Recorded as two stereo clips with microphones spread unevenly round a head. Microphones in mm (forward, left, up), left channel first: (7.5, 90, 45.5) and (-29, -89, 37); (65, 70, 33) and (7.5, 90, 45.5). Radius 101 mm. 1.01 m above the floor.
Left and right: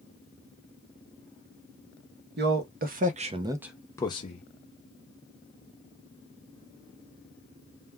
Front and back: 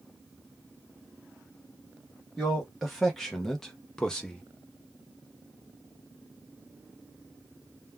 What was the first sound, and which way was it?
A man speaking, 105° right.